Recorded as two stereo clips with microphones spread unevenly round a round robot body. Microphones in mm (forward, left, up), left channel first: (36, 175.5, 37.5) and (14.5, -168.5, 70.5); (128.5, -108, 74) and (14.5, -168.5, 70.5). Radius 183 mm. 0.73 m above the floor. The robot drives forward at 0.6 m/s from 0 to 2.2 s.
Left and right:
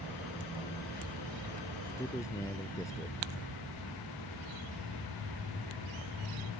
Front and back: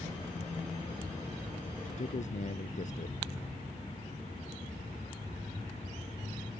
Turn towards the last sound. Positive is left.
turn(degrees=5)